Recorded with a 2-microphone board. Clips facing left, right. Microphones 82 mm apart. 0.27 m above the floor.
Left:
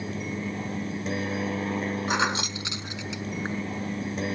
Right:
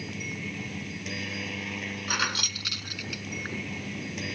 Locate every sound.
0.0 s a helicopter: 35° left (ahead or behind)
2.1 s keys jangling: 25° left (ahead or behind)